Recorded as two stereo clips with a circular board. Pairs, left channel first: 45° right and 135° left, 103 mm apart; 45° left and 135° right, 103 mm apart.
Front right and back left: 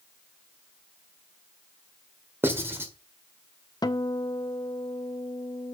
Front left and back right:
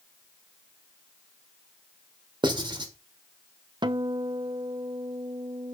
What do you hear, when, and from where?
2.4 s writing: 160° right, 1.6 m
3.8 s a guitar: 95° right, 0.6 m